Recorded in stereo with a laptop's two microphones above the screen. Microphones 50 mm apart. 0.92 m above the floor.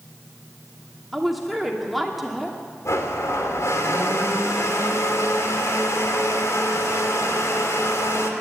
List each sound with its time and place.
1.1 s a woman speaking: centre (ahead or behind), 2.5 m
2.9 s a blender: 80° left, 2.5 m